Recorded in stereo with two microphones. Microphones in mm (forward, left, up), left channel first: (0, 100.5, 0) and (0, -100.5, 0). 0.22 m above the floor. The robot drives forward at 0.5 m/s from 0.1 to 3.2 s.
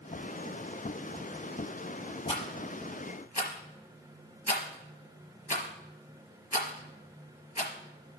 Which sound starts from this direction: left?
A rattle, at 2.3 s.